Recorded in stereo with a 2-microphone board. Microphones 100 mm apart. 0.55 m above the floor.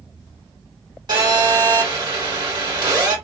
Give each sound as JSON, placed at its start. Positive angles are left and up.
{"t": 1.1, "sound": "a phone buzzing", "side_deg": -45, "distance_m": 1.8}